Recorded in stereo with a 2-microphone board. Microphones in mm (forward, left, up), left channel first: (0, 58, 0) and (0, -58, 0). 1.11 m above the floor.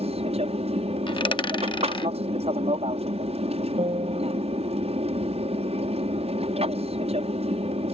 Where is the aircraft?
60° right (ahead or behind).